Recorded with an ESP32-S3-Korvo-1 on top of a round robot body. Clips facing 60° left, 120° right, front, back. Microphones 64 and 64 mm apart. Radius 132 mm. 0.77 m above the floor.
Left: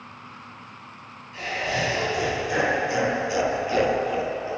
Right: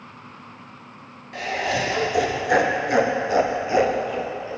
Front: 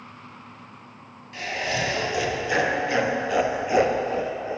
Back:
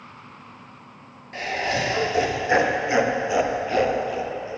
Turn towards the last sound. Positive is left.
turn(degrees=-5)